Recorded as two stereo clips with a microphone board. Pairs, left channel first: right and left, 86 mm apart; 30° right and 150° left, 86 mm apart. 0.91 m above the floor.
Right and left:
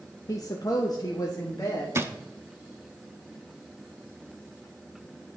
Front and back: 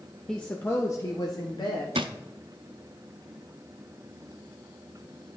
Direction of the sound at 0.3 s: 110° right.